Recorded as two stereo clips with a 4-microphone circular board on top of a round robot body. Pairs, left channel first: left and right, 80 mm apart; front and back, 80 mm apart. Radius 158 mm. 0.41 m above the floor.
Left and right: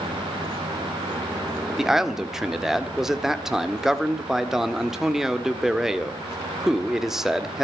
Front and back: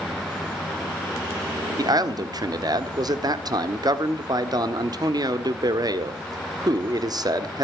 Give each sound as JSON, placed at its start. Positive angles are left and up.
{"t": 1.8, "sound": "a man speaking", "azimuth_deg": -175, "distance_m": 1.9}